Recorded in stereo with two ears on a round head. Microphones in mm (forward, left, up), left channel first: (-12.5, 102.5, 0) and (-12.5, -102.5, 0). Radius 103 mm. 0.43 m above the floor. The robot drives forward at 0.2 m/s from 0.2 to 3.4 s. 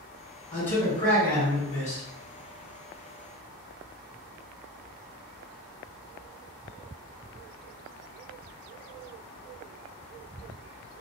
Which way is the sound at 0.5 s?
10° left (ahead or behind).